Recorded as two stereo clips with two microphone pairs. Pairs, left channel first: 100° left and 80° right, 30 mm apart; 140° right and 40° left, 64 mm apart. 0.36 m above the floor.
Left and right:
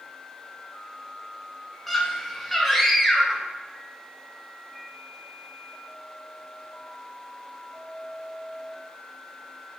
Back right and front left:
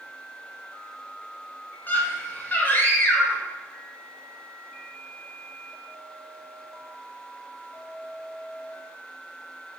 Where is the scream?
170° right, 0.9 m.